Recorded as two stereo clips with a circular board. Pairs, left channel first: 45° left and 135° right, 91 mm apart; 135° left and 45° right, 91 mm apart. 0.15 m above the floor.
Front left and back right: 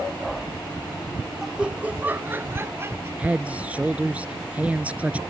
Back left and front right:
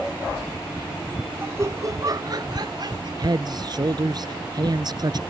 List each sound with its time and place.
1.4 s laughter: 60° right; by 3.1 s 80° right
3.2 s a man speaking: 65° right